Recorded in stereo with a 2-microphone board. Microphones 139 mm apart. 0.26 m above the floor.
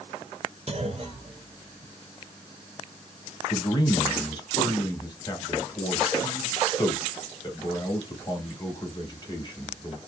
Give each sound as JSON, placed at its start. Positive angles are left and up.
{"t": 0.7, "sound": "a clunk", "side_deg": -50, "distance_m": 0.6}
{"t": 3.5, "sound": "a man speaking", "side_deg": 30, "distance_m": 1.0}